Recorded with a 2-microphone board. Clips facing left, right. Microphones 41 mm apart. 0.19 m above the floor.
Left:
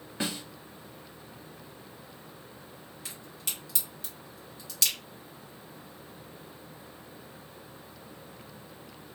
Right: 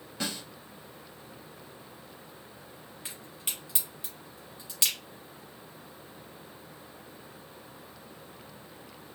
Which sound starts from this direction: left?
A snare drum, at 0.2 s.